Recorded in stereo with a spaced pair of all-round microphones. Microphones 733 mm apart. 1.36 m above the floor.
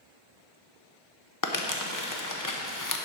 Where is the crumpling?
25° left (ahead or behind), 1.0 m.